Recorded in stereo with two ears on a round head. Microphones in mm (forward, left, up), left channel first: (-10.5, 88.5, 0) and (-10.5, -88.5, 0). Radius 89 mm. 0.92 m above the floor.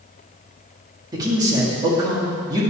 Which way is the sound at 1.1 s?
20° right (ahead or behind).